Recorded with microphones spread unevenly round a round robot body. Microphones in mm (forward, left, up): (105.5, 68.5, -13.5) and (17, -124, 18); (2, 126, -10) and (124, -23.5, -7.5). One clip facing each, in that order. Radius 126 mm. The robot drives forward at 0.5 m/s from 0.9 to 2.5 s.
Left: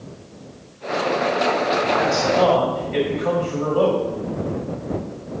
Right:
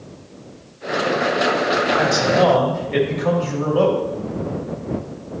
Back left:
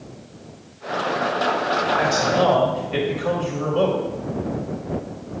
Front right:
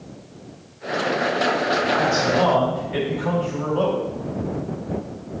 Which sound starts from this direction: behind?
A man speaking, at 1.9 s.